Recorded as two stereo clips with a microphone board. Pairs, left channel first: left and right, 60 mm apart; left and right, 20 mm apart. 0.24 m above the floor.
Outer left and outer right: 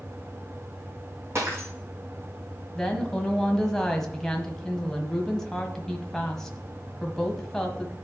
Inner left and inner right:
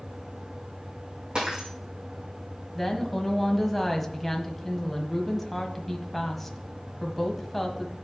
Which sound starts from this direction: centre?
A woman speaking, at 2.8 s.